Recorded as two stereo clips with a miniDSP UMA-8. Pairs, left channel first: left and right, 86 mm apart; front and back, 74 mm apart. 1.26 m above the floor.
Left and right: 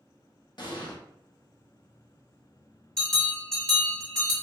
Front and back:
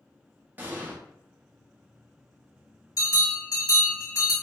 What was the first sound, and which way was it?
An explosion, 115° left.